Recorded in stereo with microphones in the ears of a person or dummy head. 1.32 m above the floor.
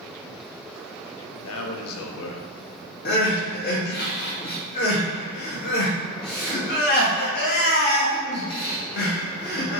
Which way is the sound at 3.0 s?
50° left (ahead or behind).